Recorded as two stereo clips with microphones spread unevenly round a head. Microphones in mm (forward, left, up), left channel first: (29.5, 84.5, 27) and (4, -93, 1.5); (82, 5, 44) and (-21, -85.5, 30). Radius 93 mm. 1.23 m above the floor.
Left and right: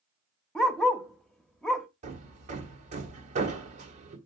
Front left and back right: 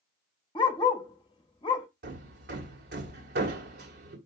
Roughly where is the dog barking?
Ahead.